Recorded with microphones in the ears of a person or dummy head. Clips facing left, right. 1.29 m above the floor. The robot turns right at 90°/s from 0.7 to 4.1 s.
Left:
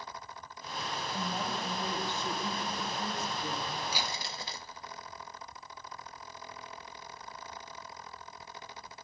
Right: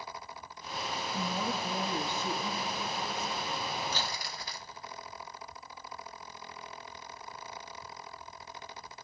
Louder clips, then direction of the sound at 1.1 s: Right 2 dB; 105° right.